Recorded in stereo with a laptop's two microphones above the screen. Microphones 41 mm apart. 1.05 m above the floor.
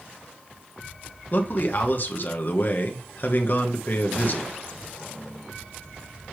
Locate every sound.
1.3 s a man speaking: 50° left (ahead or behind), 1.3 m